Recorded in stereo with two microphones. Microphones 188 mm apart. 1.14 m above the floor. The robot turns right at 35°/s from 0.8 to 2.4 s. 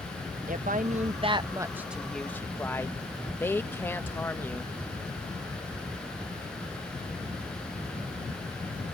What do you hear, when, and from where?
0.5 s a woman speaking: 45° right; by 4.7 s 10° left